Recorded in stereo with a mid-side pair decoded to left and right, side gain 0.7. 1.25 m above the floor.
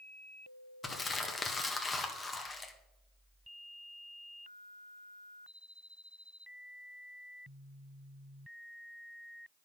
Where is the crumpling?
20° left, 1.6 m.